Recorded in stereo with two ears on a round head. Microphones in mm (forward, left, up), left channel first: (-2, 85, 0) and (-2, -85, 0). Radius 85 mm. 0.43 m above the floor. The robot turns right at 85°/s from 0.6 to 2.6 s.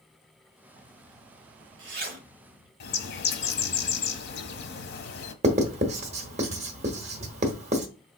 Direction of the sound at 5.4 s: 35° right (ahead or behind).